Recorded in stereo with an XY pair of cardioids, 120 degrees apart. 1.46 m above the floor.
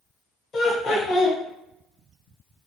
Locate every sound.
0.5 s laughter: 55° left, 1.0 m